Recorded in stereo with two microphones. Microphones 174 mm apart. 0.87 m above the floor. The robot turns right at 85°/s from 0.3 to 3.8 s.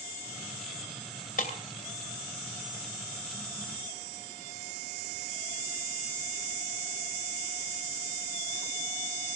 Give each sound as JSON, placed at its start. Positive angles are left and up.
{"t": 1.4, "sound": "breaking glass", "side_deg": 55, "distance_m": 2.5}